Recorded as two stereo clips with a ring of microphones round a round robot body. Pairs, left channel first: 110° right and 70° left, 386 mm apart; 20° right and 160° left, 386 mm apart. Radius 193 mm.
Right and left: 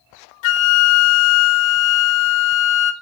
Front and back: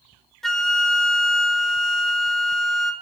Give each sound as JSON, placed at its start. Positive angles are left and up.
{"t": 0.4, "sound": "a flute", "azimuth_deg": -110, "distance_m": 1.5}